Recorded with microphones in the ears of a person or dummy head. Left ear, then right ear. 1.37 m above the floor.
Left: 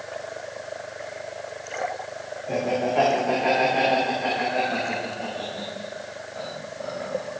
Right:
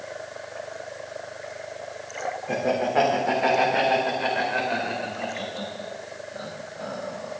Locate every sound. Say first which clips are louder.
2.5 s laughter: even; 45° right (ahead or behind), 3.5 m; by 7.3 s 35° right (ahead or behind), 6.5 m